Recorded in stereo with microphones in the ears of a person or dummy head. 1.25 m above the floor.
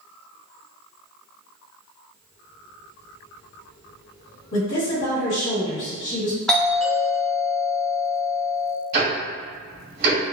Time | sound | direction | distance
4.5 | a woman speaking | 55° left (ahead or behind) | 1.5 m
6.5 | a doorbell | centre (ahead or behind) | 0.7 m
8.9 | ticking | 60° right (ahead or behind) | 1.7 m